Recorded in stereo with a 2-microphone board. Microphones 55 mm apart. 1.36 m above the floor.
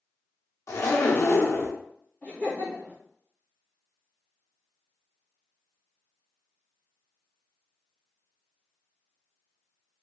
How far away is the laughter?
About 1.3 m.